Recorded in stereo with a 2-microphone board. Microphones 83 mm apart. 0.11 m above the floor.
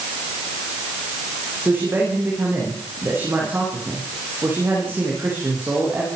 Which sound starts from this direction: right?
A man speaking, at 1.6 s.